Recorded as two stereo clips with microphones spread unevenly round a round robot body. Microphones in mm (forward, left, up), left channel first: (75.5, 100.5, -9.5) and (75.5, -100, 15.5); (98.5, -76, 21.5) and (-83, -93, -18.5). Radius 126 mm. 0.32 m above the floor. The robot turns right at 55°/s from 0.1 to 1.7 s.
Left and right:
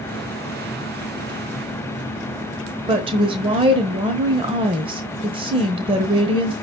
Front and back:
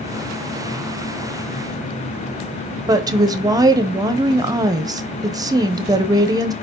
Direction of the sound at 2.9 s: 150° right.